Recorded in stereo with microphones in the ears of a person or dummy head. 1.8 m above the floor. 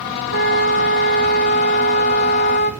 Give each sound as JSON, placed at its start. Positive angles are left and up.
{"t": 0.3, "sound": "a flute", "side_deg": 60, "distance_m": 1.4}